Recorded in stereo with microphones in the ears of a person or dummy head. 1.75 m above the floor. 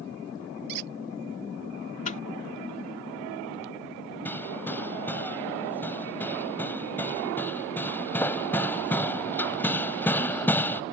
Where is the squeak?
50° right (ahead or behind).